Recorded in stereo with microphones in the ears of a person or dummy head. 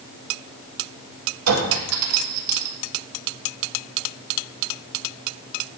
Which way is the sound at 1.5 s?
80° right.